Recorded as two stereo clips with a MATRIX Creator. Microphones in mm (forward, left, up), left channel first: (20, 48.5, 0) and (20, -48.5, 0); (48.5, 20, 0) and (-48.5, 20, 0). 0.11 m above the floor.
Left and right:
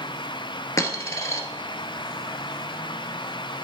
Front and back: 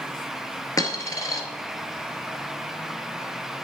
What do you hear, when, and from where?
0.8 s a dropped coin: 45° left, 1.1 m